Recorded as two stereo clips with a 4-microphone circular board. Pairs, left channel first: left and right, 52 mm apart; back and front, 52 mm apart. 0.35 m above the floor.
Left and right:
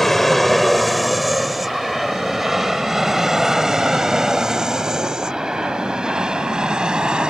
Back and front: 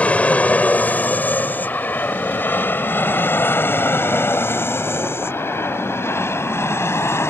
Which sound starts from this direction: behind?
An aircraft, at 0.0 s.